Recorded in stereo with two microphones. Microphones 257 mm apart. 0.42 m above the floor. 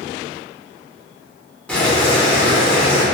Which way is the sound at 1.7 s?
5° left (ahead or behind).